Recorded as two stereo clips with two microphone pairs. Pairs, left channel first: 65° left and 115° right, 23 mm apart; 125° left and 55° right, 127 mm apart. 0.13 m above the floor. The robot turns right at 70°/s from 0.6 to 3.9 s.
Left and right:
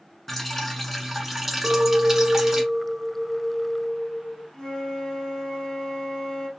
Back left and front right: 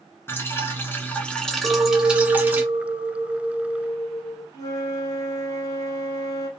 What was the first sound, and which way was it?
Dripping, 140° left.